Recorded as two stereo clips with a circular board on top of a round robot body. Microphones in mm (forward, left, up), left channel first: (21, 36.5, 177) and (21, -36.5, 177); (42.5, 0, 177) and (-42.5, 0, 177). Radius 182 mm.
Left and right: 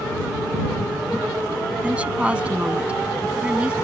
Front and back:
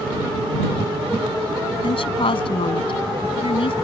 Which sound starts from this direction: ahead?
A woman speaking, at 1.8 s.